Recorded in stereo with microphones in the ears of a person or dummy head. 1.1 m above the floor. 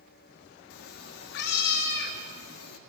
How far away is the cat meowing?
About 0.9 m.